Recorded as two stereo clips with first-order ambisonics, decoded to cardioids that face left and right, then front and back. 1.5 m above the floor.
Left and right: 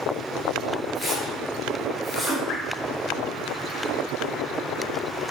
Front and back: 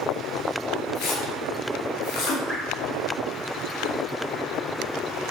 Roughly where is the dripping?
Left.